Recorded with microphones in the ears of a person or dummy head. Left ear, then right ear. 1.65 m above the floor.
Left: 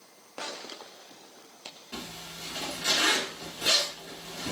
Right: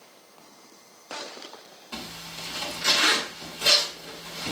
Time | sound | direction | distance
1.9 | a zipper | 30° right (ahead or behind) | 3 m